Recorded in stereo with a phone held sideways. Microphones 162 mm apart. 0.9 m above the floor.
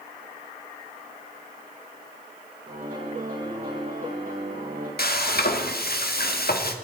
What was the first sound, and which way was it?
A piano, 60° right (ahead or behind).